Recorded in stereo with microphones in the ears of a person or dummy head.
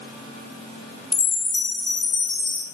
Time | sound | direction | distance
1.1 | a chime | 5° left (ahead or behind) | 0.9 m